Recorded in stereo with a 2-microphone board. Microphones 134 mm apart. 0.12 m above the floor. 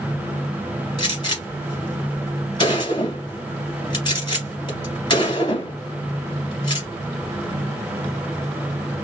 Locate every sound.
1.0 s a gunshot: 35° left (ahead or behind), 2 m